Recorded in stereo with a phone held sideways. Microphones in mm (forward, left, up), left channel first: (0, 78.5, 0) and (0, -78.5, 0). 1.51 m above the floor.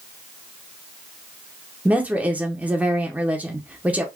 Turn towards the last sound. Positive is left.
turn(degrees=-10)  # may be behind; listen again after turning